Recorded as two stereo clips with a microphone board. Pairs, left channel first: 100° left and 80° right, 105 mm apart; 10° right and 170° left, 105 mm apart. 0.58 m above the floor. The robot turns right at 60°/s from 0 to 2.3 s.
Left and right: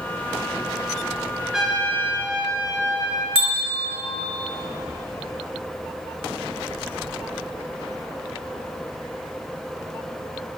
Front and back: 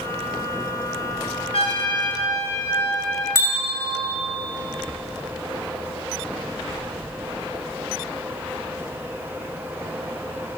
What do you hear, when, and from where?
1.5 s a trumpet: 5° left, 1.6 m; by 3.2 s 50° left, 1.6 m
3.4 s a bell: 70° right, 2 m